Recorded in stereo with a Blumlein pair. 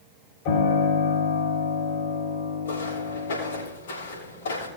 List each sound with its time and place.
0.5 s a piano: 45° left, 5 m
2.6 s footsteps: 65° left, 6 m